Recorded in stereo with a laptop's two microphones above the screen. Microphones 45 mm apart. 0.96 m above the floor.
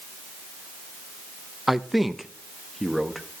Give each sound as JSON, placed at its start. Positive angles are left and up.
{"t": 1.7, "sound": "a man speaking", "side_deg": -5, "distance_m": 0.7}